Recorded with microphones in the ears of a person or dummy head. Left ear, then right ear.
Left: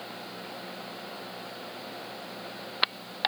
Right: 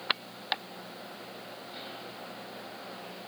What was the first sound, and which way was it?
Only background noise.